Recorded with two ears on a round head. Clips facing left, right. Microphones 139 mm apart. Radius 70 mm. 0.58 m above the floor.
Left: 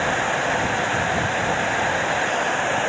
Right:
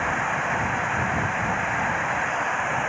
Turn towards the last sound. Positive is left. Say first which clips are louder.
# left 4 dB
turn(degrees=40)  # may be behind; listen again after turning